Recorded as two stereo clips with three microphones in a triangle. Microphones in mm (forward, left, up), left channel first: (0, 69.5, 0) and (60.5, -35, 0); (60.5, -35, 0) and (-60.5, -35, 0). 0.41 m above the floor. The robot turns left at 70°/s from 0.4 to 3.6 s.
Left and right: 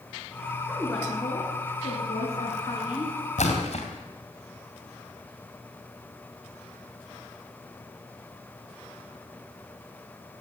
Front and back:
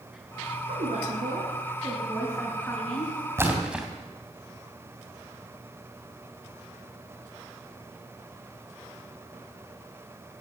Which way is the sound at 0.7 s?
145° right.